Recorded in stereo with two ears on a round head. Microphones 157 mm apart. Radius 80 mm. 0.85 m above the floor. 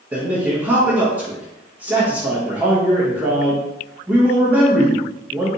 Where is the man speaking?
10° right (ahead or behind), 1.0 m.